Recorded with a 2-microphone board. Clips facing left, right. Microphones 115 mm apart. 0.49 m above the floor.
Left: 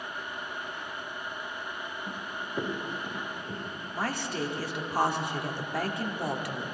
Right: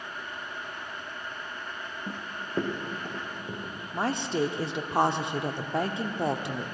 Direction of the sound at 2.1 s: 30° right (ahead or behind).